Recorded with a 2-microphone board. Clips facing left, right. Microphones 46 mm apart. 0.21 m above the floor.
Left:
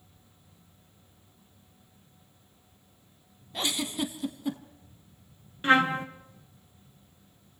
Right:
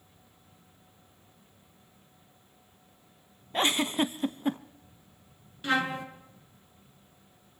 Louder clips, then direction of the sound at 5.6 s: Left 6 dB; 35° left (ahead or behind).